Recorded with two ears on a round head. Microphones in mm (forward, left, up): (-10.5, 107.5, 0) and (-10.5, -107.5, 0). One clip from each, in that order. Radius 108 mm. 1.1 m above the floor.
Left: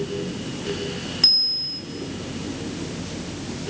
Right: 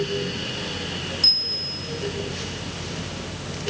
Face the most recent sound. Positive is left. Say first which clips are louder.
# left 2 dB
turn(degrees=10)  # may be behind; listen again after turning